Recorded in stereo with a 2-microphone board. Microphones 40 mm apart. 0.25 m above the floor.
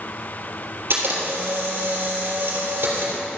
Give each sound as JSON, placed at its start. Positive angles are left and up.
{"t": 0.9, "sound": "a camera shutter", "side_deg": -65, "distance_m": 3.5}